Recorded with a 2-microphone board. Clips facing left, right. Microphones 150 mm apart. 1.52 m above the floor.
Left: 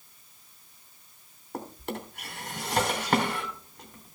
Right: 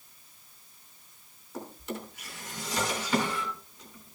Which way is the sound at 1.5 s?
60° left (ahead or behind).